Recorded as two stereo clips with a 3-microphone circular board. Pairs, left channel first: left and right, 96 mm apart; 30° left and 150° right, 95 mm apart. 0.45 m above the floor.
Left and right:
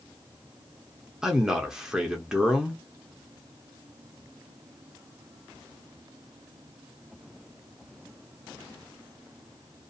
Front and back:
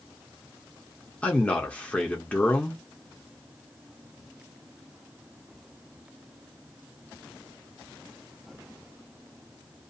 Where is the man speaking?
20° right, 0.7 m.